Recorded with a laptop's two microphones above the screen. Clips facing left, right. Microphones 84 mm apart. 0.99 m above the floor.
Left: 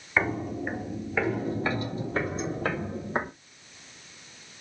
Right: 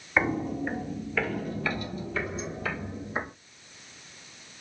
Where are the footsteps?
5° right (ahead or behind), 1.5 m; by 3.3 s 55° left (ahead or behind), 2.5 m.